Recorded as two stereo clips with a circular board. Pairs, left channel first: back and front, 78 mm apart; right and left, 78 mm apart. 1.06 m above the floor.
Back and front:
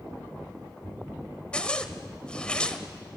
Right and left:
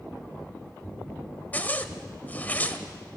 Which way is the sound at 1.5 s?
120° right.